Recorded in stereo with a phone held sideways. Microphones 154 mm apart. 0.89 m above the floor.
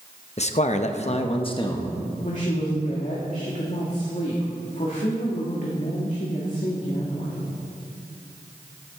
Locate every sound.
0.4 s a man speaking: 45° left (ahead or behind), 0.9 m; by 2.0 s 25° left (ahead or behind), 1.4 m
2.2 s a woman speaking: 55° left (ahead or behind), 1.9 m